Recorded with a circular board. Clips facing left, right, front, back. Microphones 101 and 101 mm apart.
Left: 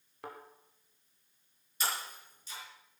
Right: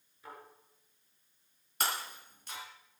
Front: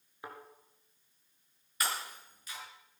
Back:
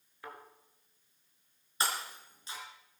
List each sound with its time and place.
0.2 s a thud: 70° left, 3 m
1.8 s breaking glass: 120° right, 4 m